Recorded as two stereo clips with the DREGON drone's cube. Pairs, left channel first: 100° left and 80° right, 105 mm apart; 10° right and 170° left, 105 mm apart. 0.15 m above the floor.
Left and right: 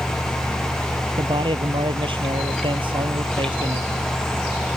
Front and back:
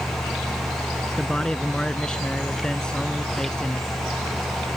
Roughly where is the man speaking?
Right.